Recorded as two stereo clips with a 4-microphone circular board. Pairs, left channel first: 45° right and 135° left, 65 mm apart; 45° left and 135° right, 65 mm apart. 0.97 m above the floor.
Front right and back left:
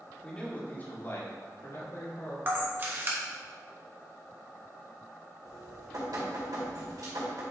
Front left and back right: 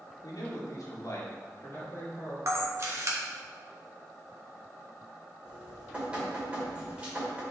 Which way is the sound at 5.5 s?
155° left.